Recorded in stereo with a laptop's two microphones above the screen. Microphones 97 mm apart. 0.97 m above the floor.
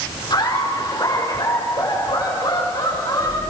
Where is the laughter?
50° left (ahead or behind), 3.5 m; by 3.4 s 45° left (ahead or behind), 7.5 m.